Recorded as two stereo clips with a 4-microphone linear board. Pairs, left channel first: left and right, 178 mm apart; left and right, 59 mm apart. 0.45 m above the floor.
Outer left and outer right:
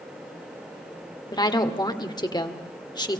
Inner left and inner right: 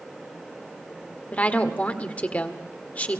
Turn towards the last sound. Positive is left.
turn(degrees=25)  # may be behind; listen again after turning